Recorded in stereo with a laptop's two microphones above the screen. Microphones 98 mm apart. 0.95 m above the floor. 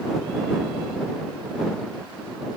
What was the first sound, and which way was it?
Only background noise.